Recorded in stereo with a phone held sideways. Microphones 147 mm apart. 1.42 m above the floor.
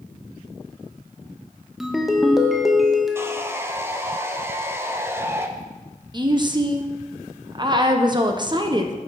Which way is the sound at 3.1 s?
15° right (ahead or behind).